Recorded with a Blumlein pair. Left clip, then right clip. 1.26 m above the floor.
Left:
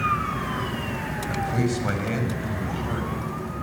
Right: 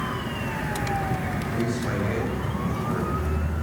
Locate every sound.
1.3 s a man speaking: 25° left, 8 m; by 3.5 s 5° left, 8.5 m